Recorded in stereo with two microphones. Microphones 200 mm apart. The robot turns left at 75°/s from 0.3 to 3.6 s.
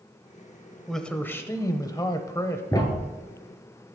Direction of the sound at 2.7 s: 15° left (ahead or behind).